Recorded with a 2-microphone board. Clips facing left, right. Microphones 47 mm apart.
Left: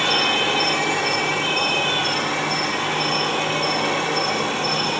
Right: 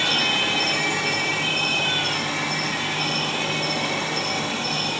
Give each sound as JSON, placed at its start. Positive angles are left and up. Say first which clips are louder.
{"t": 0.0, "sound": "an insect", "louder": "left 2 dB", "side_deg": 50, "distance_m": 1.4}